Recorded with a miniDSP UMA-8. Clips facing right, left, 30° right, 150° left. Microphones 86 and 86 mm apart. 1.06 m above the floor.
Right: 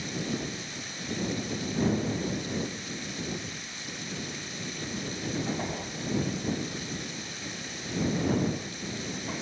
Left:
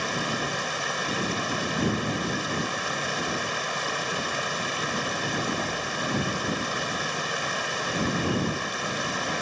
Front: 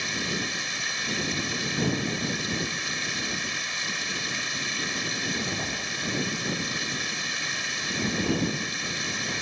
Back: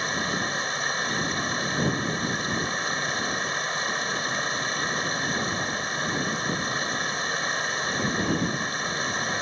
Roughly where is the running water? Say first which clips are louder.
Left 5 dB, back 4 dB; left.